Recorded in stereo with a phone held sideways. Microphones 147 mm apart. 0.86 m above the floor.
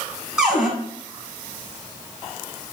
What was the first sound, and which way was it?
A cupboard door, 5° right (ahead or behind).